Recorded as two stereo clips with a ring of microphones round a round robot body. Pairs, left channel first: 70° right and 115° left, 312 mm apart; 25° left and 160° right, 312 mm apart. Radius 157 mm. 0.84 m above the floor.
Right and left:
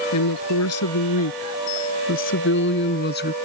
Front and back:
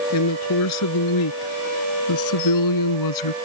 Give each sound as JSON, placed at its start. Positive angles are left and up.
{"t": 0.1, "sound": "a woman speaking", "azimuth_deg": -25}